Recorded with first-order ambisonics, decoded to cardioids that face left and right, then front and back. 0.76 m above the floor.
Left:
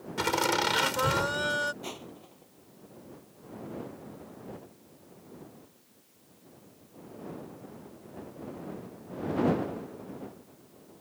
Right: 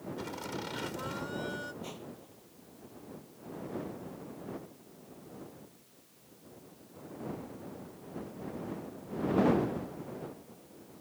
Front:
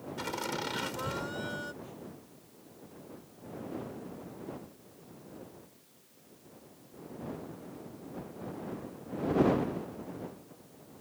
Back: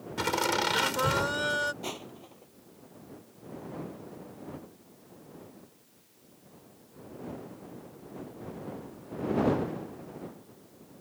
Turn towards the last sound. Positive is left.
turn(degrees=155)